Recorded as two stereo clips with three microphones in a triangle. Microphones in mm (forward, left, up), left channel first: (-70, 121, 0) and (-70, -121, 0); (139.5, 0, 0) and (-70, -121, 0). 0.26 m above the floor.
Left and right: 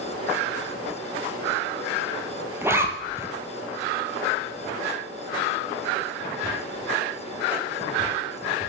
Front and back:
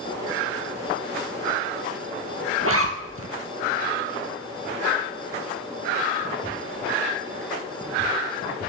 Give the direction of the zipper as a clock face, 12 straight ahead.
6 o'clock.